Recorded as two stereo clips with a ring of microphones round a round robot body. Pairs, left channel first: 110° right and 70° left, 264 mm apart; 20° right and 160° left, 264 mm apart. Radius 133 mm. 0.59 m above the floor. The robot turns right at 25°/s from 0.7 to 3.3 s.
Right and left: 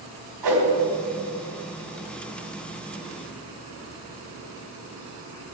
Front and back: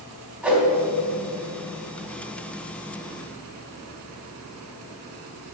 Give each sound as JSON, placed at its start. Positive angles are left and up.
{"t": 0.4, "sound": "a whoosh", "azimuth_deg": 70, "distance_m": 4.0}